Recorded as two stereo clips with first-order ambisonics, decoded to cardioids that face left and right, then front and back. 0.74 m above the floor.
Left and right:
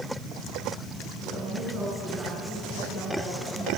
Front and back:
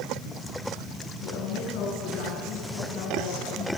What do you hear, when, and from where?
1.2 s a woman speaking: 25° right, 9.5 m